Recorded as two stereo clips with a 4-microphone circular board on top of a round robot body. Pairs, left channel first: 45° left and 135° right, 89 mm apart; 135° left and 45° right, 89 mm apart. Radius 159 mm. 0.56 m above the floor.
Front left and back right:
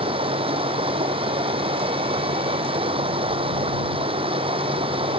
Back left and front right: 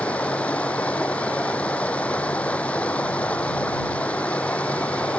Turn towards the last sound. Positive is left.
turn(degrees=-150)